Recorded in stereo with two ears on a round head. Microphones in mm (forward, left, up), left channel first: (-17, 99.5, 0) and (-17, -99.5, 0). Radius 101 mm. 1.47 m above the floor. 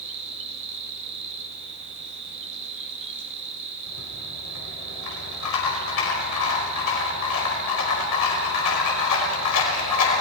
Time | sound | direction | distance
0.0 | an insect | 60° right (ahead or behind) | 2 m
3.9 | a rattle | 85° left | 5 m